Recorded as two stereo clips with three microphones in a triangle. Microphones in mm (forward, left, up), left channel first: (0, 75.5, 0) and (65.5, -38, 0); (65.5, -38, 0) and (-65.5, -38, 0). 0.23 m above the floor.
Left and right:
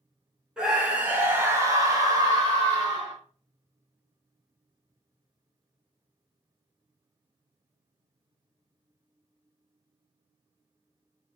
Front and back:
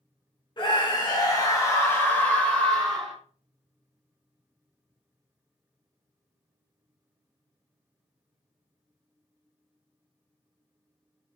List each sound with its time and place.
0.6 s a scream: 20° left, 1.7 m; by 3.1 s 90° right, 1.8 m